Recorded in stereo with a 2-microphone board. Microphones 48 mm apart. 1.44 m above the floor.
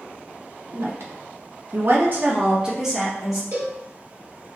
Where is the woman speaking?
60° right (ahead or behind), 1.0 m; by 3.4 s centre (ahead or behind), 1.1 m.